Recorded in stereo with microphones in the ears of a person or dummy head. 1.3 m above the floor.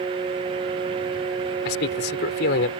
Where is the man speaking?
55° left (ahead or behind).